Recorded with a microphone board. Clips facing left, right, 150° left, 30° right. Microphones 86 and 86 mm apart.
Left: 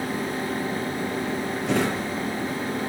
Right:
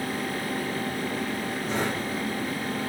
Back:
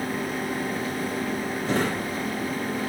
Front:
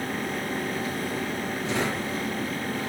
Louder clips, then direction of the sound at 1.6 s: Left 5 dB, back 3 dB; 105° left.